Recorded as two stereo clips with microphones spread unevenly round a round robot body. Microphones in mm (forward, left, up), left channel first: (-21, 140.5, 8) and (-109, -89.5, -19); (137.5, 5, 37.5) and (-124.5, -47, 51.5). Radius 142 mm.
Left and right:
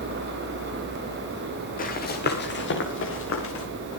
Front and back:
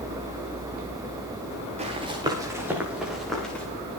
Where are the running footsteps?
125° left, 4.5 m; by 3.6 s 95° left, 6 m.